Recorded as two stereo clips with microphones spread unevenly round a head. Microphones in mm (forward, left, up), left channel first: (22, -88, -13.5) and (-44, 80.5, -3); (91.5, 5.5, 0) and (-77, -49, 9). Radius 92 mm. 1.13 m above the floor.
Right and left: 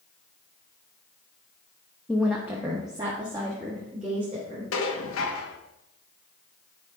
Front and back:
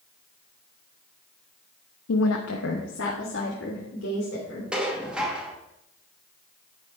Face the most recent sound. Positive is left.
turn(degrees=-75)